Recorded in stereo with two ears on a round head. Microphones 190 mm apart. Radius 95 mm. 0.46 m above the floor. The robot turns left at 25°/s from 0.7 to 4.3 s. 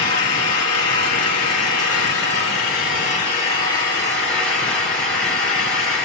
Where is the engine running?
100° left, 5 m; by 6.0 s 10° left, 5 m.